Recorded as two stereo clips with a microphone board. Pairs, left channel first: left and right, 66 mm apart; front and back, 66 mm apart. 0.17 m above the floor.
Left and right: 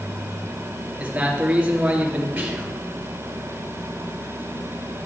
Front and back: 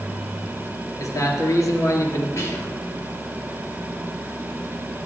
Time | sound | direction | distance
1.0 | a man speaking | 20° right | 2.5 m
2.4 | whispering | 20° right | 3 m